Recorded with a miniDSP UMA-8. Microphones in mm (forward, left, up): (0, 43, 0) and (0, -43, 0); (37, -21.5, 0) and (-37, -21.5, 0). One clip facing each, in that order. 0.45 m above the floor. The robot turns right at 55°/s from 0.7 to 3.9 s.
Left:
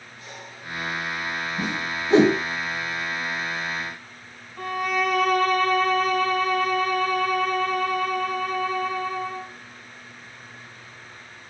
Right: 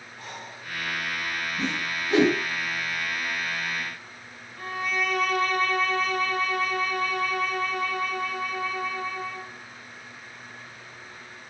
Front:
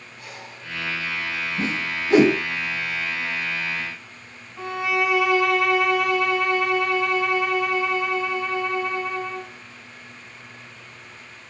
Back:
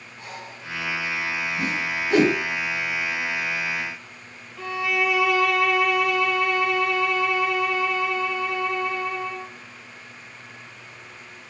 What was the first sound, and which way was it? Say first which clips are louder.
Breathing: right 2 dB, back 3 dB; 125° right.